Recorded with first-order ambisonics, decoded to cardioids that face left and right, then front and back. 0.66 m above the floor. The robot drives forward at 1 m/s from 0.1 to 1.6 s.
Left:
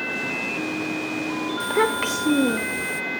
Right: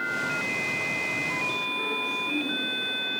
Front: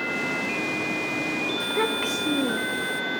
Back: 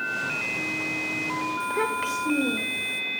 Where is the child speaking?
80° left, 1.4 m.